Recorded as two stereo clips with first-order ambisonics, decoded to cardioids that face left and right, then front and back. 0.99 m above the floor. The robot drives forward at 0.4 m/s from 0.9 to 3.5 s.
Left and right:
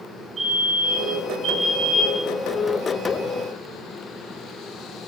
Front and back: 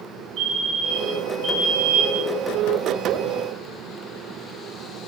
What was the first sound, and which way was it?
A fire alarm, 165° right.